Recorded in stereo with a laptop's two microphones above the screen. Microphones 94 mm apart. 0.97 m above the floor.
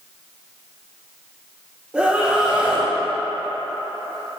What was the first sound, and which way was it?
A scream, 10° right (ahead or behind).